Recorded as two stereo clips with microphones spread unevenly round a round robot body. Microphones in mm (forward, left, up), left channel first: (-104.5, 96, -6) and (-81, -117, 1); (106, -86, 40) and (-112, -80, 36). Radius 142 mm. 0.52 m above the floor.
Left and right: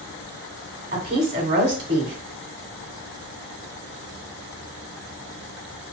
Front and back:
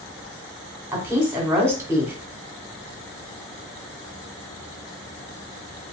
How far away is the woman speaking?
About 1.5 m.